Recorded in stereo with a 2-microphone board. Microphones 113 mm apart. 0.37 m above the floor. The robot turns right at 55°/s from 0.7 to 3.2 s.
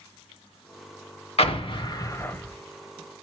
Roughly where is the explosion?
Left.